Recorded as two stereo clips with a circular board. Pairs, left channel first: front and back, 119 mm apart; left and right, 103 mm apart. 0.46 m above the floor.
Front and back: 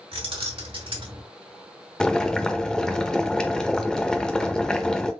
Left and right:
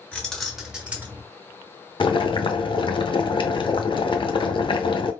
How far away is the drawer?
I don't hear a drawer.